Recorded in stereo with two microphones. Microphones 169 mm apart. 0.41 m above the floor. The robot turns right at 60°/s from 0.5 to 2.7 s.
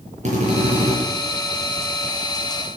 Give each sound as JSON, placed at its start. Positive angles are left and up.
{"t": 0.2, "sound": "a drill", "side_deg": -45, "distance_m": 6.5}